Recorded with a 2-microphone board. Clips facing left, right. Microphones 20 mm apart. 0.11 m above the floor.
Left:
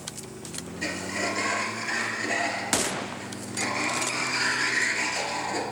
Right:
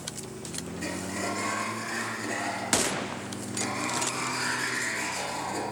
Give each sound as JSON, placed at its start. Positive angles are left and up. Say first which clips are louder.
{"t": 0.8, "sound": "a sliding door", "louder": "left 4 dB", "side_deg": 30, "distance_m": 1.9}